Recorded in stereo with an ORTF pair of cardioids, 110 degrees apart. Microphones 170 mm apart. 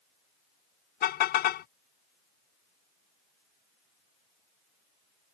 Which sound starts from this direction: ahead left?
A car horn, at 1.0 s.